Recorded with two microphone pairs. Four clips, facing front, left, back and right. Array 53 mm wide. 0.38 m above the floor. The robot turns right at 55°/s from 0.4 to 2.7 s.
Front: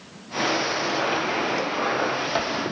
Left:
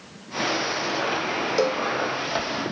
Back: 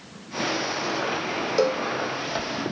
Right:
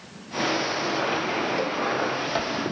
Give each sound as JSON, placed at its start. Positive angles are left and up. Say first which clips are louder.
{"t": 1.6, "sound": "a cowbell", "louder": "left 4 dB, back 3 dB", "azimuth_deg": 135}